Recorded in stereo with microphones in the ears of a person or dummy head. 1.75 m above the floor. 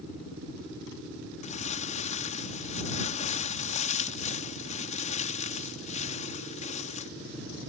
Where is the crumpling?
35° left (ahead or behind).